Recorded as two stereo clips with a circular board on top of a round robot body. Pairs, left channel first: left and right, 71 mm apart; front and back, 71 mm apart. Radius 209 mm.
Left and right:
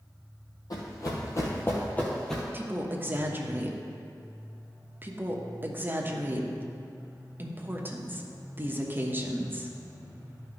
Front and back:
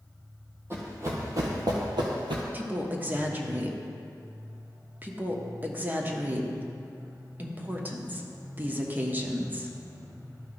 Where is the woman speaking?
130° right, 1.3 m.